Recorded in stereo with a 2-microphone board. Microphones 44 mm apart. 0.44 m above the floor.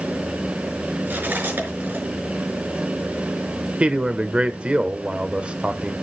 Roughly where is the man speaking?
Right.